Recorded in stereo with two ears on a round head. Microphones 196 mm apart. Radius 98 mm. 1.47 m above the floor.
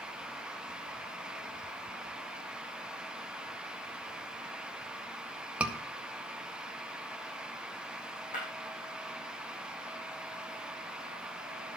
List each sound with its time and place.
5.6 s a scream: 5° right (ahead or behind), 1.4 m
8.3 s breaking glass: 35° left (ahead or behind), 6 m